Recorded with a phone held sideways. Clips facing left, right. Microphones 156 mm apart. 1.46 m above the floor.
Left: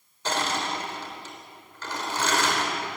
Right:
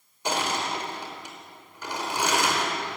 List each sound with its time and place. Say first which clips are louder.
0.2 s crushing: even; 15° right (ahead or behind), 4.5 m